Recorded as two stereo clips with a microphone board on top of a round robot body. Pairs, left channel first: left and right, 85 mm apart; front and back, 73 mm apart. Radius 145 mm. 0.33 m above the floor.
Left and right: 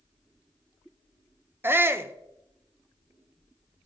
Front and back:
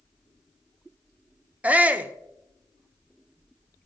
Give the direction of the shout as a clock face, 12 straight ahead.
4 o'clock.